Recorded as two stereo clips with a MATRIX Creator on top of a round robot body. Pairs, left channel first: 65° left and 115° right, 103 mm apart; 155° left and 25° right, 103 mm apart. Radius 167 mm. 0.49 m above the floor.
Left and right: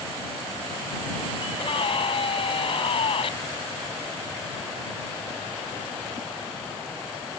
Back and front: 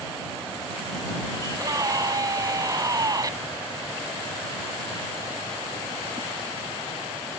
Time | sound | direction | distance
1.4 | a scream | 35° left | ?